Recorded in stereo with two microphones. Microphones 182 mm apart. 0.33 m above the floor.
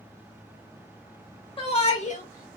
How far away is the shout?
About 0.9 m.